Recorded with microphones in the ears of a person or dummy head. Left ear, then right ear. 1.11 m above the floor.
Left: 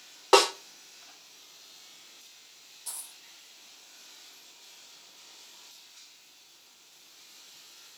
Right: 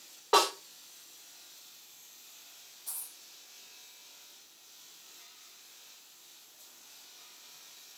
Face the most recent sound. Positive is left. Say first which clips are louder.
# left 4 dB
turn(degrees=35)  # may be behind; listen again after turning